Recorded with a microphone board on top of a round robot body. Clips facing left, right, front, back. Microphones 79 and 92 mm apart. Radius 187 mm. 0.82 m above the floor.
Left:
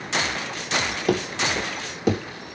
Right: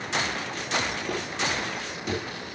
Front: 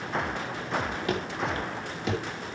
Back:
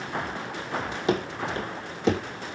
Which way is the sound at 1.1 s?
110° left.